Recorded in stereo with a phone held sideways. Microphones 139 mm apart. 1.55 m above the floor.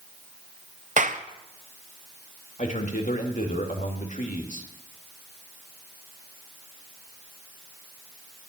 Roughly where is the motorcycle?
No motorcycle in this recording.